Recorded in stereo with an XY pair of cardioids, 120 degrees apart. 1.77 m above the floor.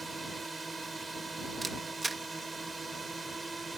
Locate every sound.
0.0 s a drone: 25° right
1.6 s a camera shutter: 25° right